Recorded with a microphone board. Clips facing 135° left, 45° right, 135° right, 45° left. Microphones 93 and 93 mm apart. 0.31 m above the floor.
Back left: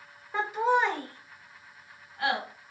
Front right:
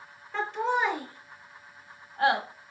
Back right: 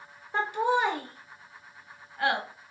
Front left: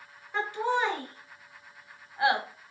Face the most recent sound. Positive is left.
turn(degrees=-25)